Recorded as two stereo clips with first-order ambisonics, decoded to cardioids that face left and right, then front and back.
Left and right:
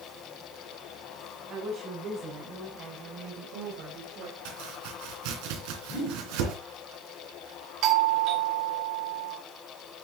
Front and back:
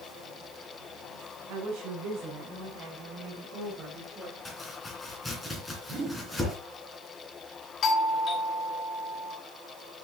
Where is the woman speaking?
150° right, 4 m; by 4.3 s 105° right, 3 m.